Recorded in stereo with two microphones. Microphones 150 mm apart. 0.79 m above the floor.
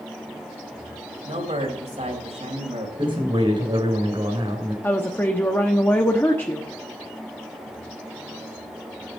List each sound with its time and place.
1.2 s a man speaking: 50° right (ahead or behind), 3.5 m
3.0 s a man speaking: 35° right (ahead or behind), 3 m
4.8 s a woman speaking: 15° left (ahead or behind), 1.0 m